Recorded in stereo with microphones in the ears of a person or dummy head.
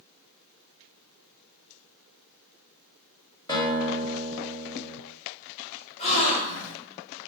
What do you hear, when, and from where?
3.5 s a guitar: 15° left (ahead or behind), 1.1 m
6.0 s a gasp: 30° left (ahead or behind), 0.6 m